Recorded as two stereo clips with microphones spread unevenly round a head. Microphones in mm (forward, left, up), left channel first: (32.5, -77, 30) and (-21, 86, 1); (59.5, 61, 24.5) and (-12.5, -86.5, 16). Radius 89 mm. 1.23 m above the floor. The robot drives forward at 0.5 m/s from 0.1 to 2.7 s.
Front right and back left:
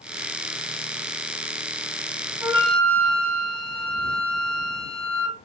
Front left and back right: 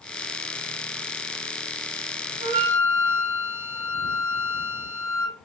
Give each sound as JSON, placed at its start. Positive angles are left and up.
{"t": 2.4, "sound": "a flute", "azimuth_deg": 170, "distance_m": 5.0}